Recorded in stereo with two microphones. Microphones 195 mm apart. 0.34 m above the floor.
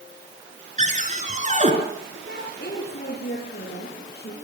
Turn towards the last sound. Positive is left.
turn(degrees=60)  # may be behind; listen again after turning